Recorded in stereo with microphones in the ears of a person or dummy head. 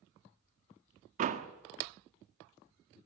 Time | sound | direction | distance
1.2 | a door slam | 45° right (ahead or behind) | 1.5 m